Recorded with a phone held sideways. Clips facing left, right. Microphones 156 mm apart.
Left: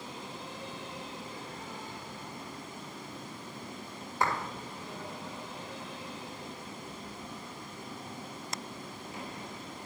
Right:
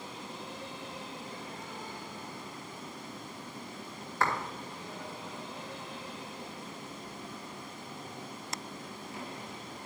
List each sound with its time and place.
4.2 s a clap: 15° left (ahead or behind), 2 m